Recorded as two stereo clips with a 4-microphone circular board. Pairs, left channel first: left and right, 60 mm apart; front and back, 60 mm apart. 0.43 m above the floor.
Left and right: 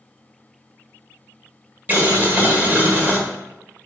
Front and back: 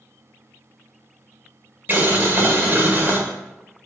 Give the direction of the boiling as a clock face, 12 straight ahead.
5 o'clock.